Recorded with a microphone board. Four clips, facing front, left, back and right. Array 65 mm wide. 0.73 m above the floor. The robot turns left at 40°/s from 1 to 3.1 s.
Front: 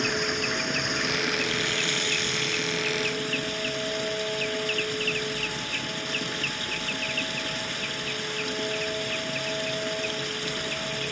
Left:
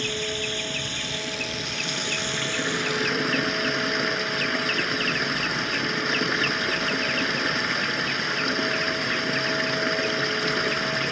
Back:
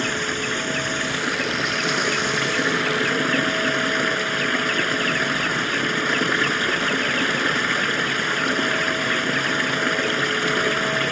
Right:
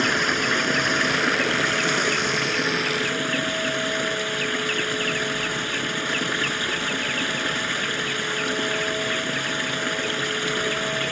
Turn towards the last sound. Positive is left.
turn(degrees=170)